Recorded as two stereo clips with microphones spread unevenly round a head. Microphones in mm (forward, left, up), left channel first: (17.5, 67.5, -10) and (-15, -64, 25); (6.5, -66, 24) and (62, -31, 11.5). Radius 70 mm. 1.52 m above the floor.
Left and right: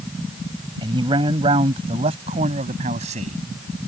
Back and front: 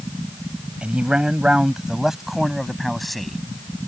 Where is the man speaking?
45° right; by 3.4 s 60° right.